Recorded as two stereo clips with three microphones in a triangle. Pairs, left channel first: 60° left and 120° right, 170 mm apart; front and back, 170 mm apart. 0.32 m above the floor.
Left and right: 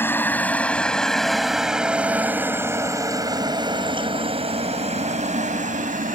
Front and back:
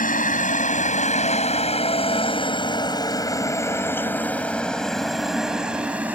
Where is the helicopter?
15° right; by 6.2 s 100° right.